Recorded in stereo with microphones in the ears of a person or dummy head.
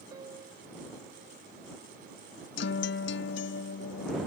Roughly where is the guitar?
Left.